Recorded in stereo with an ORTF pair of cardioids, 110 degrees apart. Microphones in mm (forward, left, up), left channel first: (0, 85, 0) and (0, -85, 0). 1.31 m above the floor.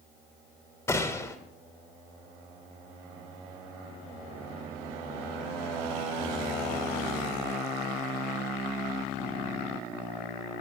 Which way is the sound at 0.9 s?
15° left.